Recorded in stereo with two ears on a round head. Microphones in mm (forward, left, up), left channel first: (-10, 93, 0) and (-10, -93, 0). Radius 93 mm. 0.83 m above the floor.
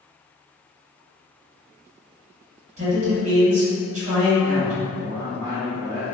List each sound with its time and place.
2.8 s a man speaking: 35° right (ahead or behind), 1.3 m
5.0 s a man speaking: 20° right (ahead or behind), 1.1 m